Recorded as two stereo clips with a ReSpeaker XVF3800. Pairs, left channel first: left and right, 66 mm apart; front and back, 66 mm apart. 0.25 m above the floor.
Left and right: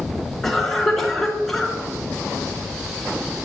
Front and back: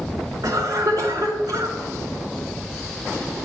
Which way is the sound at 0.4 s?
Straight behind.